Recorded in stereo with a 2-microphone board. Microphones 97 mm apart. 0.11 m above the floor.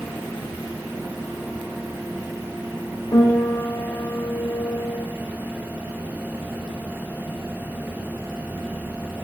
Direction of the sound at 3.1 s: 45° left (ahead or behind).